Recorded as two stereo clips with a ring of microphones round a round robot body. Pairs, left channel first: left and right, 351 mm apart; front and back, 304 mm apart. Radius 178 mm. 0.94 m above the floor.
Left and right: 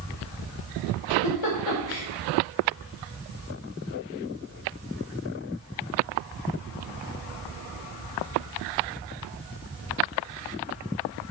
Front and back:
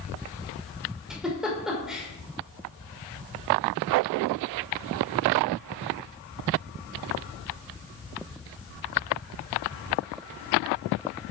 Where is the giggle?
90° left, 3 m.